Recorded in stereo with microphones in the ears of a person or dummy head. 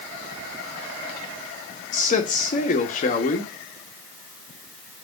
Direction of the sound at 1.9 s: 35° left (ahead or behind).